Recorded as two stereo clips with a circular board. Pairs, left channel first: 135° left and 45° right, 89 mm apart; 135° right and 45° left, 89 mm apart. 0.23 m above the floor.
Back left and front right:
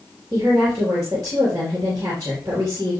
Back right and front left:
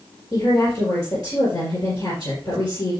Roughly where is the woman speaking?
Right.